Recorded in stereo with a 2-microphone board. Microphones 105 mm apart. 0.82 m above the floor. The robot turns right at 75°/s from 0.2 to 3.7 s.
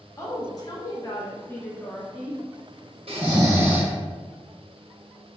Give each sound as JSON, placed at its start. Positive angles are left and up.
{"t": 0.2, "sound": "a woman speaking", "azimuth_deg": 50, "distance_m": 0.8}
{"t": 3.1, "sound": "snoring", "azimuth_deg": -65, "distance_m": 0.9}